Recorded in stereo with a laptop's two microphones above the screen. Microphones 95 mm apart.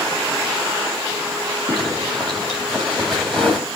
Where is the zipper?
5° left (ahead or behind), 2.5 m.